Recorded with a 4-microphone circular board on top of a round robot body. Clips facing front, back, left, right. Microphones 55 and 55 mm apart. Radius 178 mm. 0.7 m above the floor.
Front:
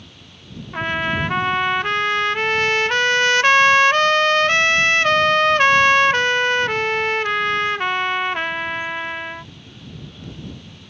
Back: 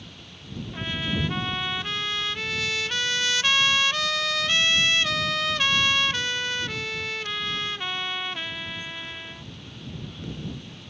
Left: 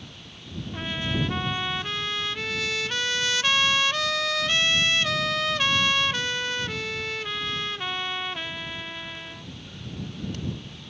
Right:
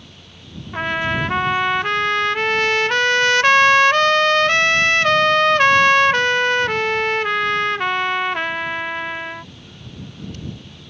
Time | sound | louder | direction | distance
0.7 | a trumpet | front 9 dB, right 9 dB | 45° right | ?